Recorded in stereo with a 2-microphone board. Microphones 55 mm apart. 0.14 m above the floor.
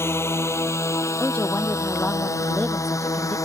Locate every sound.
0.0 s a drone: 50° left (ahead or behind); by 3.5 s 75° left (ahead or behind)
1.2 s a woman speaking: 30° left (ahead or behind)